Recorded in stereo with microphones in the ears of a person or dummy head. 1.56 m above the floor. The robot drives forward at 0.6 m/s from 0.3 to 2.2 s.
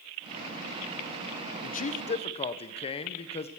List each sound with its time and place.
1.6 s a man speaking: 50° left (ahead or behind), 0.6 m; by 3.5 s 30° left (ahead or behind), 0.9 m